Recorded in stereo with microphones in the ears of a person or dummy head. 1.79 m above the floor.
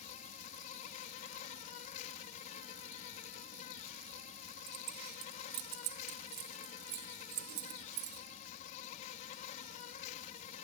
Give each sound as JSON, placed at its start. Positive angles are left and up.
{"t": 0.0, "sound": "an insect", "side_deg": 45}
{"t": 4.7, "sound": "keys jangling", "side_deg": -55}